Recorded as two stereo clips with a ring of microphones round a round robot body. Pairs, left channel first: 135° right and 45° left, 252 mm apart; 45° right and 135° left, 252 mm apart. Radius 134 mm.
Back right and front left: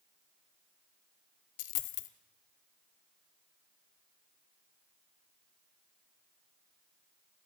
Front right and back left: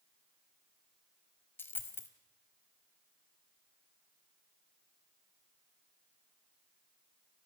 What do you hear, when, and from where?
1.6 s a dropped coin: 125° right, 1.1 m